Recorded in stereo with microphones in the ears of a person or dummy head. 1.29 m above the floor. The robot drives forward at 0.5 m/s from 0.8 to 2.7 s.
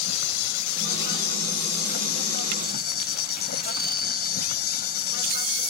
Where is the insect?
50° left (ahead or behind); by 5.7 s 45° left (ahead or behind).